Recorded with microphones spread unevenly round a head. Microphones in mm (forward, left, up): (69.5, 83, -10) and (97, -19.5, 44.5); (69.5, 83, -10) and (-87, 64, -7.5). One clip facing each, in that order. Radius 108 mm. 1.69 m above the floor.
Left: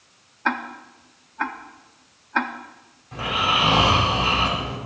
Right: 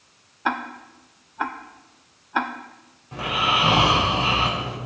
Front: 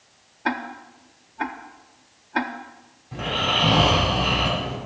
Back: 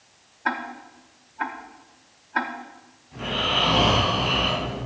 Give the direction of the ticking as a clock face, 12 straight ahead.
1 o'clock.